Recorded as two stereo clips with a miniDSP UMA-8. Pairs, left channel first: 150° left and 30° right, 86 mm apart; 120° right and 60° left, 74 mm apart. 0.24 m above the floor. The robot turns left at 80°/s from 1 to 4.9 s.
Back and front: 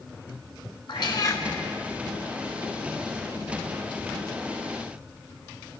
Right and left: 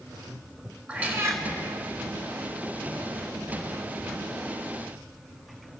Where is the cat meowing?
130° left, 1.0 m; by 1.4 s 95° left, 1.0 m.